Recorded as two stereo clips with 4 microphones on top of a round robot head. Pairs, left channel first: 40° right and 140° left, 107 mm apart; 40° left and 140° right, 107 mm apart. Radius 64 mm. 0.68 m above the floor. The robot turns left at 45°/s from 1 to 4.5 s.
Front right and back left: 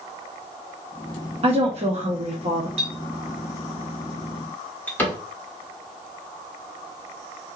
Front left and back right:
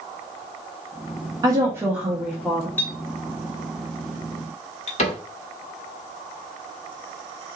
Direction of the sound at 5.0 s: 35° left.